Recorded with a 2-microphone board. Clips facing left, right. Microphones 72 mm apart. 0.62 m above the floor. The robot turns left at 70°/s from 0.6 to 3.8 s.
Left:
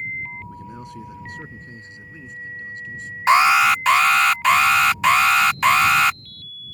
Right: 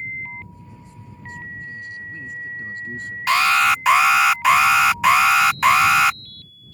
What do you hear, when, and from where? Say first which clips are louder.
0.5 s a man speaking: left 8 dB; 120° left; by 3.2 s 60° right
3.3 s an alarm: left 3 dB; 30° left; by 6.2 s 5° right